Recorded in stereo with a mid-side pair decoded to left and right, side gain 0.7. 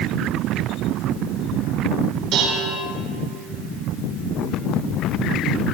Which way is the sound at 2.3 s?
60° right.